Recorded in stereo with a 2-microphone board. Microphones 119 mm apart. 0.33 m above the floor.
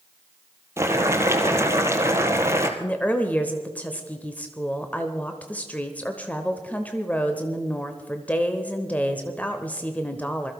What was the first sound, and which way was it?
Boiling, 25° right (ahead or behind).